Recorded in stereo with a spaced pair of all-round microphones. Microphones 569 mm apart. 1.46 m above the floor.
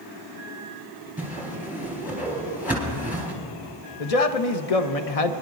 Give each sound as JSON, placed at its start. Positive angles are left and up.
{"t": 1.2, "sound": "a whoosh", "side_deg": -5, "distance_m": 3.5}
{"t": 4.0, "sound": "a man speaking", "side_deg": 85, "distance_m": 0.8}